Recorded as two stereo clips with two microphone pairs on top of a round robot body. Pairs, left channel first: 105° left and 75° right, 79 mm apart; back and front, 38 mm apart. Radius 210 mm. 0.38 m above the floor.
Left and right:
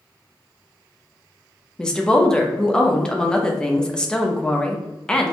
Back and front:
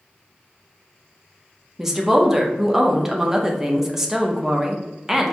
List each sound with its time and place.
1.8 s a woman speaking: 55° left, 0.9 m